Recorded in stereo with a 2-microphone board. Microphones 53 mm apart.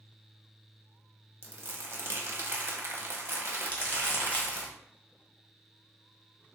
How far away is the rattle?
I don't hear a rattle.